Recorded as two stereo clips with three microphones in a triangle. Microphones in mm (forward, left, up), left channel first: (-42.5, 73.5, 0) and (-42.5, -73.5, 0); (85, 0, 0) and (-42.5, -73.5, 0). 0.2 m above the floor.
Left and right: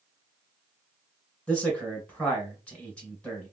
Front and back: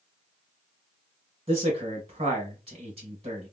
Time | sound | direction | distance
1.5 | a man speaking | 170° left | 2 m